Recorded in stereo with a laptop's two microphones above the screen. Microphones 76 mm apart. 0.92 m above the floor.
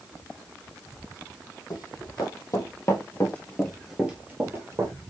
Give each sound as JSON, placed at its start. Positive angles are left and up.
{"t": 1.7, "sound": "running footsteps", "side_deg": 60, "distance_m": 2.5}